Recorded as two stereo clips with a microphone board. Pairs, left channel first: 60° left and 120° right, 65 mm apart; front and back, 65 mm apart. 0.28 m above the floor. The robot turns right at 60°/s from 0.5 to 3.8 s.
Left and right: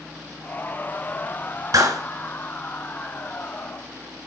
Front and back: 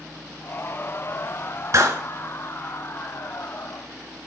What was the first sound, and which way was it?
A clap, 145° right.